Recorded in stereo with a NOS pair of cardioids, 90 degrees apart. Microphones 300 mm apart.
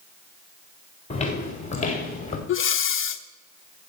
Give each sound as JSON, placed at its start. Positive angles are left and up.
{"t": 1.1, "sound": "footsteps", "azimuth_deg": 25, "distance_m": 5.0}
{"t": 2.5, "sound": "breathing", "azimuth_deg": 45, "distance_m": 1.1}